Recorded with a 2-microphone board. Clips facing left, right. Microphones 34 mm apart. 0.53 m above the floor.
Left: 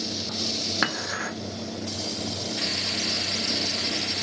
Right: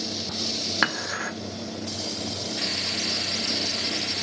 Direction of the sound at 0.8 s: 10° right (ahead or behind).